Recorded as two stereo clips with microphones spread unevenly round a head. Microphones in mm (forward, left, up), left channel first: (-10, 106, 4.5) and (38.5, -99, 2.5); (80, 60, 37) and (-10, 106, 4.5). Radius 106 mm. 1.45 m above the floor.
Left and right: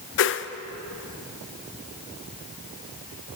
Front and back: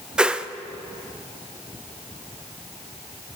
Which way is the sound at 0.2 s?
80° left.